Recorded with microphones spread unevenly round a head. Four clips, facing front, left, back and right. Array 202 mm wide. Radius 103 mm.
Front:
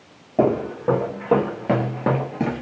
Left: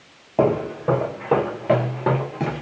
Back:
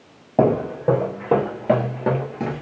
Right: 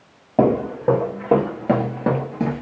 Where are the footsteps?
145° right, 1.9 m; by 2.6 s 25° right, 1.6 m.